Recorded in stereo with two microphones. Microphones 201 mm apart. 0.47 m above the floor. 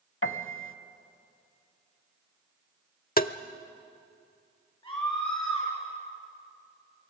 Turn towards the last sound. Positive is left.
turn(degrees=20)  # may be behind; listen again after turning